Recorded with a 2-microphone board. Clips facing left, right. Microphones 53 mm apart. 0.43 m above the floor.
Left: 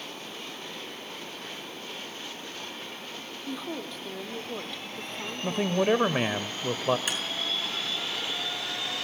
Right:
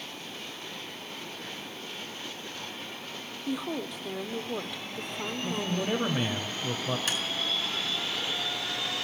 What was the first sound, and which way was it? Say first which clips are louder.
A woman speaking: right 3 dB; 10° right (ahead or behind).